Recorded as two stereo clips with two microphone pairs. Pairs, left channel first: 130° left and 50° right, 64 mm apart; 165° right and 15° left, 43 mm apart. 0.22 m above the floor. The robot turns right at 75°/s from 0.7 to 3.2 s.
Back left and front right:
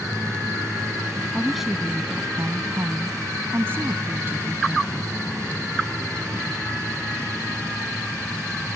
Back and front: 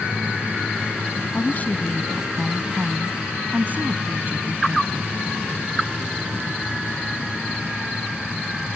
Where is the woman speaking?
155° right; by 5.3 s 15° right.